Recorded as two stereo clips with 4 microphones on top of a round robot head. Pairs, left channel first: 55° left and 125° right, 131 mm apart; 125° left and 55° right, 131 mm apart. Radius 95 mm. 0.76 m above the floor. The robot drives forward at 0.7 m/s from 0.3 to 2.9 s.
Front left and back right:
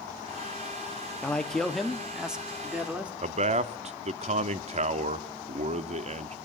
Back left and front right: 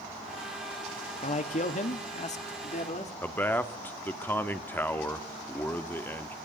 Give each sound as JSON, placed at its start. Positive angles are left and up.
{"t": 1.2, "sound": "a man speaking", "azimuth_deg": 135, "distance_m": 1.8}
{"t": 3.2, "sound": "a man speaking", "azimuth_deg": -160, "distance_m": 1.4}